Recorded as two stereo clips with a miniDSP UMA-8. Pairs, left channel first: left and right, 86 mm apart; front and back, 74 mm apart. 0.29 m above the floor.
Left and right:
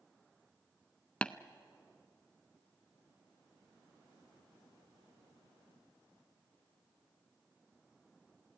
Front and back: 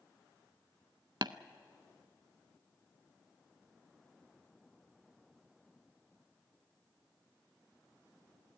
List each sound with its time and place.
1.2 s tapping: 165° left, 0.5 m